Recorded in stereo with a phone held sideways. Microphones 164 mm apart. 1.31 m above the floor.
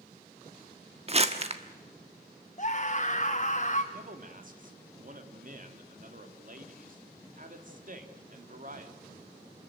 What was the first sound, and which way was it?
Crumpling, 40° right (ahead or behind).